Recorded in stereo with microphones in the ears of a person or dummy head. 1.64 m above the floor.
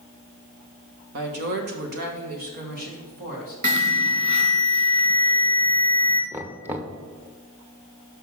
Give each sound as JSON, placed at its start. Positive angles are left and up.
{"t": 1.1, "sound": "a woman speaking", "side_deg": -50, "distance_m": 0.9}
{"t": 3.6, "sound": "an alarm", "side_deg": -30, "distance_m": 2.0}
{"t": 6.3, "sound": "knocking", "side_deg": -10, "distance_m": 0.5}